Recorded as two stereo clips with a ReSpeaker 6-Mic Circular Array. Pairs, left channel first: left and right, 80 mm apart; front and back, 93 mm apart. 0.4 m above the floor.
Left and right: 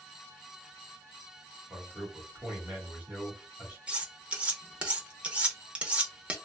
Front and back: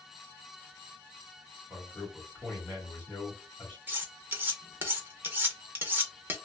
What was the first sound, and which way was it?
A man speaking, 45° right.